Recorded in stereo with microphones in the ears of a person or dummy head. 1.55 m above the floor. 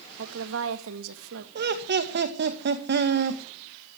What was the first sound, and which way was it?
A woman speaking, 80° right.